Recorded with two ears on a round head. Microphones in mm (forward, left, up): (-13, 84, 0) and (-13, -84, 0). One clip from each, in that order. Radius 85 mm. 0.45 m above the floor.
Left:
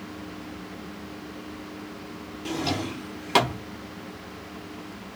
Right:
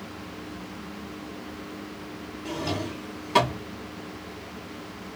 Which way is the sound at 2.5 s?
45° left (ahead or behind).